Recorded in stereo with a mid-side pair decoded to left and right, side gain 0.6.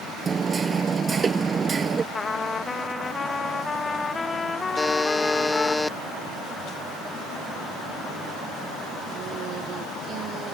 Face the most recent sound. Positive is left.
turn(degrees=10)